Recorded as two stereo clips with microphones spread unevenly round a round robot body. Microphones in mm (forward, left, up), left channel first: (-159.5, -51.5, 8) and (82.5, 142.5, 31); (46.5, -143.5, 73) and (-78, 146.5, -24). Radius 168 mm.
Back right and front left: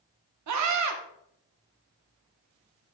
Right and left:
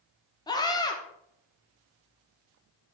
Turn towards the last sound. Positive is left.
turn(degrees=20)